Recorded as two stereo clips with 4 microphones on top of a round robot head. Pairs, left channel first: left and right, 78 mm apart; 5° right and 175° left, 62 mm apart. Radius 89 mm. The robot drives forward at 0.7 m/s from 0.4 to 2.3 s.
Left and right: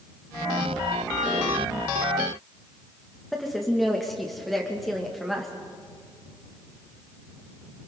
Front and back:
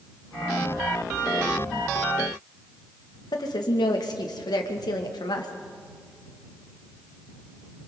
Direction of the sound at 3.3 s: Straight ahead.